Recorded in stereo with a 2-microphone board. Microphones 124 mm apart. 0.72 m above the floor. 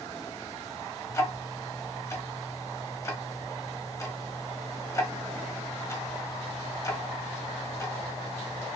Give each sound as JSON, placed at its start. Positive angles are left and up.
{"t": 1.1, "sound": "ticking", "side_deg": 25, "distance_m": 0.7}